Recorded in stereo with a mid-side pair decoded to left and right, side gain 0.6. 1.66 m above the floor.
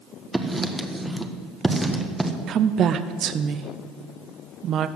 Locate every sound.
0.3 s writing: 10° right, 1.4 m
2.5 s a woman speaking: 50° right, 0.6 m